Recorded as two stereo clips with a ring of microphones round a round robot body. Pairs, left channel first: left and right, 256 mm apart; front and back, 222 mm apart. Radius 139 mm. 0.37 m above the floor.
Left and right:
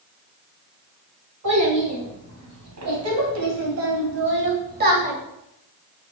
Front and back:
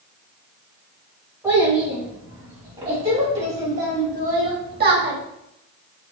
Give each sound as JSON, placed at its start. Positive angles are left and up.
{"t": 1.4, "sound": "a child speaking", "azimuth_deg": -100, "distance_m": 3.5}